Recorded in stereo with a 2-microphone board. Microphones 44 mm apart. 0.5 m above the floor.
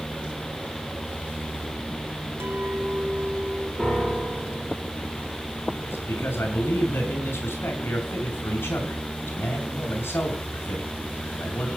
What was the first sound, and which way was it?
A clink, 75° right (ahead or behind).